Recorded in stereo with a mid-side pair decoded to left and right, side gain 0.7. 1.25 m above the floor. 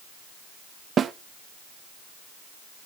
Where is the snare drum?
30° right, 0.7 m.